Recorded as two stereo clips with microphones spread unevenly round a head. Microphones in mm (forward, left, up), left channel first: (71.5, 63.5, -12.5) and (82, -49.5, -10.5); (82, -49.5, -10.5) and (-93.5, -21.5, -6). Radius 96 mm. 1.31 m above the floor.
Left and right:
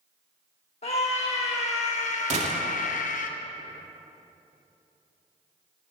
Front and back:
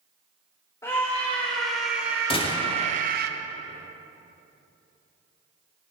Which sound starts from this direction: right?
A gunshot, at 2.3 s.